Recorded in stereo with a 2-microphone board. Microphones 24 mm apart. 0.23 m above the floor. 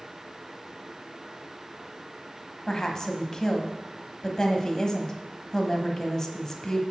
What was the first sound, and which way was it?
A woman speaking, 25° left (ahead or behind).